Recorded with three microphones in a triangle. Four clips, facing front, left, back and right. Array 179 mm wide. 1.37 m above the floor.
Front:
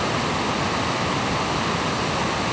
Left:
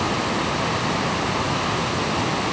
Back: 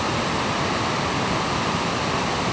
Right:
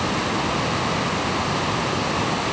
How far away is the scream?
No scream in this recording.